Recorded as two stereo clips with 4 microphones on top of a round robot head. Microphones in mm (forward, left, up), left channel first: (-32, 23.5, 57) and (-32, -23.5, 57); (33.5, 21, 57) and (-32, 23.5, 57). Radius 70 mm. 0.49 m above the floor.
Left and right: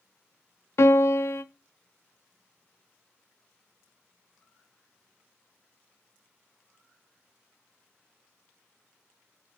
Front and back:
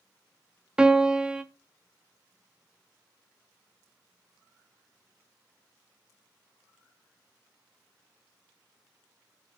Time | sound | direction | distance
0.8 | a piano | 100° left | 0.7 m